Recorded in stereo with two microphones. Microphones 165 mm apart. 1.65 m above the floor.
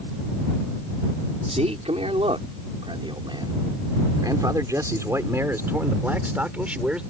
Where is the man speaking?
40° right (ahead or behind); by 7.0 s 5° right (ahead or behind).